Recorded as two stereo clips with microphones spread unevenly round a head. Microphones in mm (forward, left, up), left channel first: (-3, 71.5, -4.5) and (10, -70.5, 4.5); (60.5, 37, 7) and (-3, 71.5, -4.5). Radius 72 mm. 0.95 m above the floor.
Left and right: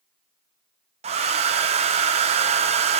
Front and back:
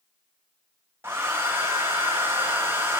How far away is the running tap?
I don't hear a running tap.